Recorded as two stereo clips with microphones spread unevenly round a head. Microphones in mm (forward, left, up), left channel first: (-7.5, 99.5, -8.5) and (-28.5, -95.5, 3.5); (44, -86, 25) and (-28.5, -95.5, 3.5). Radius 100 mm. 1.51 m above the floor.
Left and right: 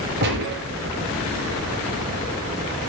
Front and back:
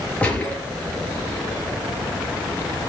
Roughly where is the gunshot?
Ahead right.